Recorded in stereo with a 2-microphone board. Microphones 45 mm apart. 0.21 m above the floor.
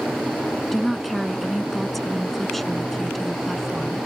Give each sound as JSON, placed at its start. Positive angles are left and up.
{"t": 0.7, "sound": "a woman speaking", "side_deg": 5}